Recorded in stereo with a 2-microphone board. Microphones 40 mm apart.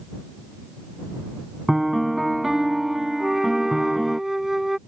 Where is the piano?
10° right (ahead or behind).